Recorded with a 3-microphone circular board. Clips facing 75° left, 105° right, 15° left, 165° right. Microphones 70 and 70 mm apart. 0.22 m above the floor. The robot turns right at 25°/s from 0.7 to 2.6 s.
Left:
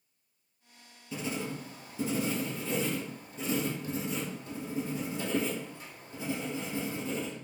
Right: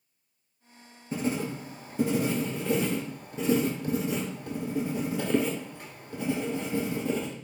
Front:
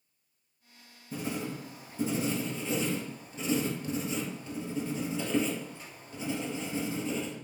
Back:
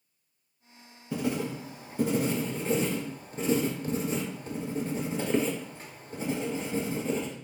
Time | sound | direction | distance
1.1 | writing | 155° right | 0.7 m